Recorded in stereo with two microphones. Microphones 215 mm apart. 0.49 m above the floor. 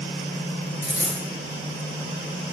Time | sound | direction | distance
0.8 | a dropped coin | 10° right (ahead or behind) | 1.6 m